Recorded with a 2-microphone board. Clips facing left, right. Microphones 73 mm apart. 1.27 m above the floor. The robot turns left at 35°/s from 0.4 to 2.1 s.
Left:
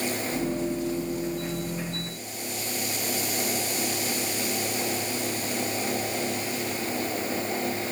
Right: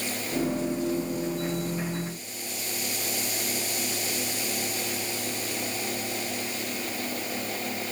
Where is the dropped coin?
I don't hear a dropped coin.